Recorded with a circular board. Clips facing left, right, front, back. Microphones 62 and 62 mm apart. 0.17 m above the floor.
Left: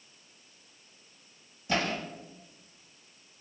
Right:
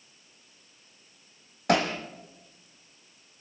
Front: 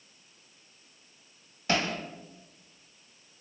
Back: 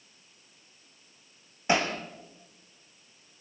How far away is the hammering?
About 3 m.